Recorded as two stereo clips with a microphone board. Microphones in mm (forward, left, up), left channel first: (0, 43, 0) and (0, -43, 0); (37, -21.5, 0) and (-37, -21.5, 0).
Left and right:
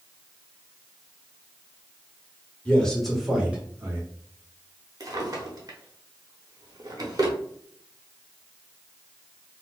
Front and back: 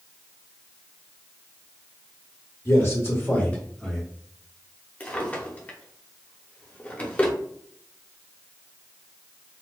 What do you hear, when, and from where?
2.6 s a man speaking: 20° left, 1.3 m; by 4.0 s 75° right, 1.1 m
5.0 s a drawer: 65° right, 0.8 m